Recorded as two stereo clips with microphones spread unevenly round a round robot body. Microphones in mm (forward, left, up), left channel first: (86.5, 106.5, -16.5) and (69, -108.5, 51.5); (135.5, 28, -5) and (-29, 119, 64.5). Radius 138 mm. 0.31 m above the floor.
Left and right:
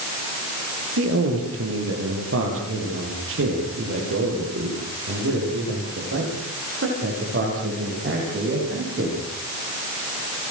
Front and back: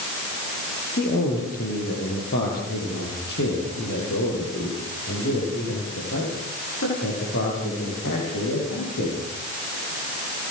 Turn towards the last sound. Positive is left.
turn(degrees=-60)